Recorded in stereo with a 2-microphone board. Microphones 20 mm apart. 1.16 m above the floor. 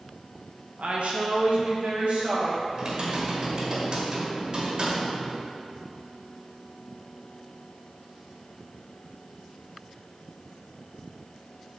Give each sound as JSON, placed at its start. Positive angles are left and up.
{"t": 0.8, "sound": "a woman speaking", "side_deg": -70, "distance_m": 0.9}
{"t": 2.7, "sound": "typing on a keyboard", "side_deg": -45, "distance_m": 1.1}